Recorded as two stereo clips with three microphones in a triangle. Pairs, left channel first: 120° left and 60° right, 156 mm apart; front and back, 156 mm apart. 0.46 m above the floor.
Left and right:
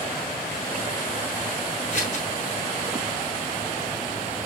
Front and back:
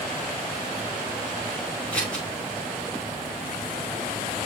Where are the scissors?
80° left, 4.5 m.